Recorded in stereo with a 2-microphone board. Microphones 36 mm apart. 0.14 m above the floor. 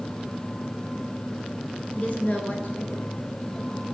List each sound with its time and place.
1.9 s a woman speaking: 40° left (ahead or behind), 1.3 m; by 3.9 s 50° left (ahead or behind), 3.5 m